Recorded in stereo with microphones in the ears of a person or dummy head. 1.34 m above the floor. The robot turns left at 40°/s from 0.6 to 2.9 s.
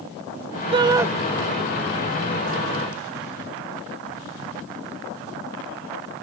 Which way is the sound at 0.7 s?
25° right (ahead or behind).